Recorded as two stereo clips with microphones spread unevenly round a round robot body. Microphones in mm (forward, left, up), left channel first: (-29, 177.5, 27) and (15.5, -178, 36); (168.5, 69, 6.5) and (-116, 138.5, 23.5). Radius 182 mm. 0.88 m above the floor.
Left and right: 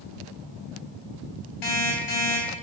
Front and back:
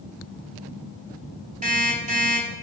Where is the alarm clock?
100° left, 3 m.